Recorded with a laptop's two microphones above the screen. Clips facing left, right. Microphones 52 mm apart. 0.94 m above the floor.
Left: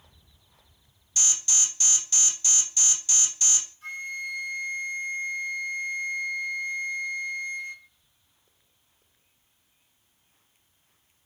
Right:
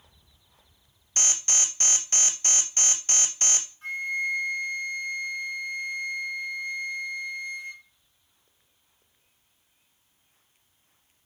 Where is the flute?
25° right (ahead or behind), 1.6 m.